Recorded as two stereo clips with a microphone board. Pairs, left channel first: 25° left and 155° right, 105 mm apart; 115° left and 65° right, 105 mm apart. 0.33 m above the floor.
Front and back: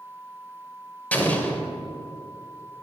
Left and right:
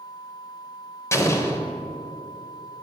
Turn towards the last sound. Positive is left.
turn(degrees=85)